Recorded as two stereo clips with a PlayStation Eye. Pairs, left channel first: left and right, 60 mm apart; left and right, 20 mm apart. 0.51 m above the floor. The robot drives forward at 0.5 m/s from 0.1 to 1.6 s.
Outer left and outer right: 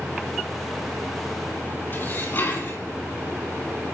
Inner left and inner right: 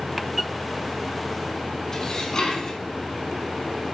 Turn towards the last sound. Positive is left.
turn(degrees=40)  # may be behind; listen again after turning